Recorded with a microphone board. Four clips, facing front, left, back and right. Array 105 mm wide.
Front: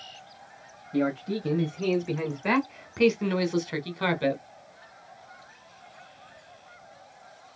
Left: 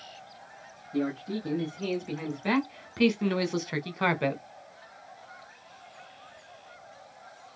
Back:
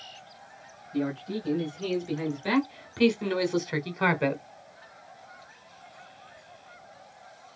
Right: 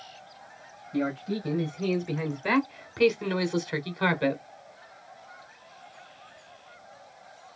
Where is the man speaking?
15° right, 2 m; by 4.4 s 155° left, 1.3 m.